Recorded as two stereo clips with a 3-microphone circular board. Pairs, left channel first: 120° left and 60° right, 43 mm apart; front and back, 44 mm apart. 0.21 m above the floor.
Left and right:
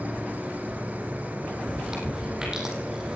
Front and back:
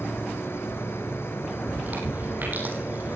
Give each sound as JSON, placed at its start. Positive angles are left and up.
{"t": 0.0, "sound": "an insect", "azimuth_deg": -10, "distance_m": 2.5}
{"t": 1.7, "sound": "chewing", "azimuth_deg": -135, "distance_m": 4.5}